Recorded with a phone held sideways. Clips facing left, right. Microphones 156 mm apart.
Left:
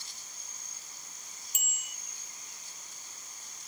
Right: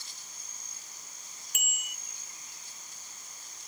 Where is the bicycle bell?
65° right (ahead or behind).